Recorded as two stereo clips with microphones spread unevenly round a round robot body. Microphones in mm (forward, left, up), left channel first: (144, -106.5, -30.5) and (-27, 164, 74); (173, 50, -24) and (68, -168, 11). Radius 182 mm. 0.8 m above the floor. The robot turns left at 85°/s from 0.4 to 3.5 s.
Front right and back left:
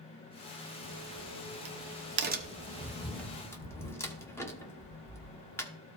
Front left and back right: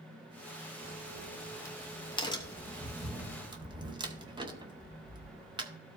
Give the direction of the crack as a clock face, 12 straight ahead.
6 o'clock.